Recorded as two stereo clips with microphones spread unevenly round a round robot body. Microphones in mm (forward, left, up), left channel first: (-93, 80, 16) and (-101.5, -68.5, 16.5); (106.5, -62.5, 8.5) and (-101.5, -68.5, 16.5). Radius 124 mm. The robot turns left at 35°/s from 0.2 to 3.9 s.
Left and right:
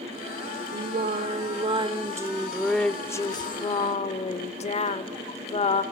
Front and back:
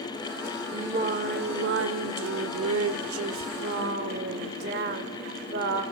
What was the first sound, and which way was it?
Singing, 115° right.